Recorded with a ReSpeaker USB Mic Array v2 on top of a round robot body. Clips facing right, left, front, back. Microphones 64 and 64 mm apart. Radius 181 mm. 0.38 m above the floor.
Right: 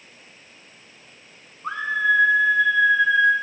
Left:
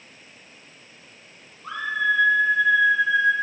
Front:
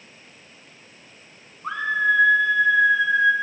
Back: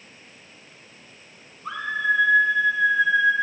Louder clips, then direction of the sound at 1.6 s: Right 2 dB, front 3 dB; 40° right.